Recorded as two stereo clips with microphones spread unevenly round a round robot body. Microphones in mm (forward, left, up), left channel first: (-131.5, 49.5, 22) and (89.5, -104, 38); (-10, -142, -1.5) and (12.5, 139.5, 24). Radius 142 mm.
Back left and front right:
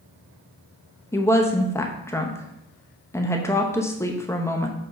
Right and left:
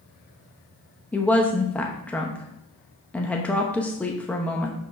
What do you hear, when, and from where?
1.1 s a woman speaking: 160° right, 0.8 m